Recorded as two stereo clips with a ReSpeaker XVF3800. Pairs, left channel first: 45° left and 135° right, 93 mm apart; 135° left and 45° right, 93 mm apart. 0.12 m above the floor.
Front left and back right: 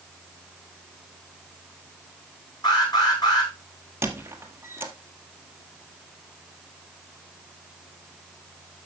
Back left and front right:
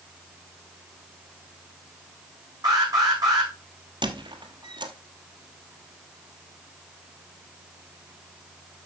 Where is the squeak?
70° right, 1.3 m.